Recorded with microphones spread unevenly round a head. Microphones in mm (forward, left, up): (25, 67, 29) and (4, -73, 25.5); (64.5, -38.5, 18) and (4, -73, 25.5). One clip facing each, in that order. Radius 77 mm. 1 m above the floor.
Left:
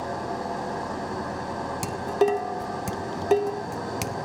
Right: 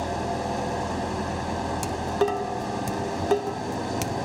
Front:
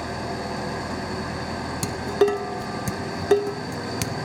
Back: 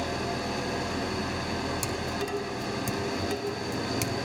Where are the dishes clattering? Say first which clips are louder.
Left 3 dB, front 10 dB; straight ahead, 1.3 m.